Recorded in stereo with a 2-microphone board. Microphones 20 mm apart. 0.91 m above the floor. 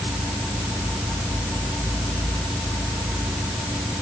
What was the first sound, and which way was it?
Only background noise.